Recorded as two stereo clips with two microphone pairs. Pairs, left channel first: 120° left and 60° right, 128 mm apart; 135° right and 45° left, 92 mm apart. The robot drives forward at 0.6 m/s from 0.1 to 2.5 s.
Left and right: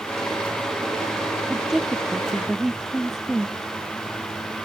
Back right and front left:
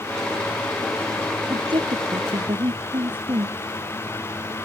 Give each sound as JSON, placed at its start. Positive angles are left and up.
{"t": 1.5, "sound": "a woman speaking", "azimuth_deg": 25}